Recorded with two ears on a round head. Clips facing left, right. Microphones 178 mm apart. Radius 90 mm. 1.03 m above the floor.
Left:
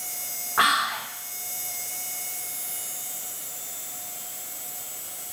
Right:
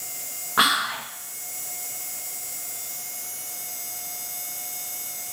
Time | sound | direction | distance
0.6 | whispering | 45° right (ahead or behind) | 0.7 m